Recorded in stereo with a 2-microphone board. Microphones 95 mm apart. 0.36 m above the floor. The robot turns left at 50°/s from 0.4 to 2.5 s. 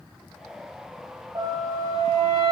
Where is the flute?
115° right, 0.8 m; by 2.5 s 170° right, 0.8 m.